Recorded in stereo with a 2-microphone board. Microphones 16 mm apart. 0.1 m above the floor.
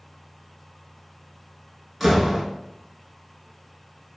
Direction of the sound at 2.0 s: 10° right (ahead or behind).